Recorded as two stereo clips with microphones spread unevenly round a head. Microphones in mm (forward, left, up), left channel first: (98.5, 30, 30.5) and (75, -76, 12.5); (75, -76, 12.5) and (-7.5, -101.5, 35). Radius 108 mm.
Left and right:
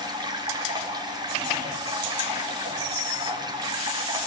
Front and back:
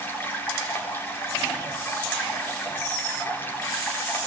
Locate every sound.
0.0 s running water: 50° right, 5.5 m